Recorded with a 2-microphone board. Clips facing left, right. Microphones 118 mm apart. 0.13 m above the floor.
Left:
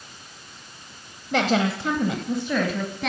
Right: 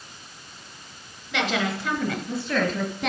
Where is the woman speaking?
45° left (ahead or behind), 1.6 m; by 3.1 s 5° right (ahead or behind), 1.7 m.